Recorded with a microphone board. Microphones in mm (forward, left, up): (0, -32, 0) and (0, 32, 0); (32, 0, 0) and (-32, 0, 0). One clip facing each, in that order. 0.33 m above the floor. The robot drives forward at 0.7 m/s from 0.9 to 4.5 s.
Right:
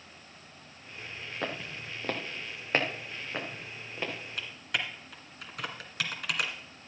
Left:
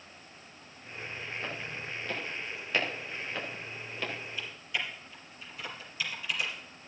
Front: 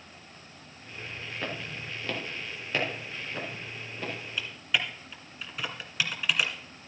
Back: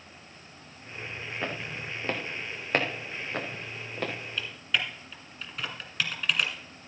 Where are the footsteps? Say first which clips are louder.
Right 2 dB, back 2 dB; 105° right, 3 m; by 4.1 s 160° right, 4.5 m.